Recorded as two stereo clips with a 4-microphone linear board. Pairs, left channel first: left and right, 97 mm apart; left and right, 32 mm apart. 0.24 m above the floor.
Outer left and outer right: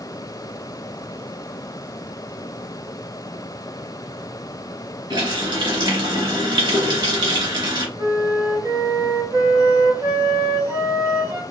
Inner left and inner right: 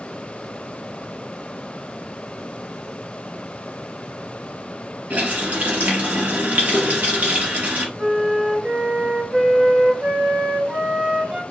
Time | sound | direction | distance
5.1 | a running tap | 55° right (ahead or behind) | 1.4 m
8.0 | a flute | 30° right (ahead or behind) | 0.9 m